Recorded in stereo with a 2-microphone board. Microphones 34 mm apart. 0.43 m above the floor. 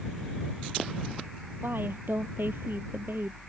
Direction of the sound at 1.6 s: 80° right.